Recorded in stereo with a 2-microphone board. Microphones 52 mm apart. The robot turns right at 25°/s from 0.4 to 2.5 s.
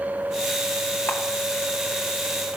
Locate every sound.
1.1 s a camera shutter: 50° left (ahead or behind), 2 m